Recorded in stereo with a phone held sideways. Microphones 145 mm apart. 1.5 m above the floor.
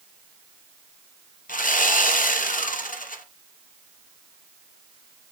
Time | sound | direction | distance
1.5 | sawing | 70° left (ahead or behind) | 0.8 m